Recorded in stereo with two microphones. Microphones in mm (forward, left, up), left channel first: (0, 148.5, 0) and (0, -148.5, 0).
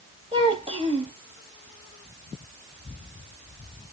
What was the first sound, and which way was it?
A child speaking, 15° right (ahead or behind).